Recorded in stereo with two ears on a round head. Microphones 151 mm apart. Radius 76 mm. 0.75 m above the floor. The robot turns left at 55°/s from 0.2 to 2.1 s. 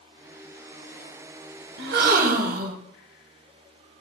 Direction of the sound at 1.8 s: 70° right (ahead or behind).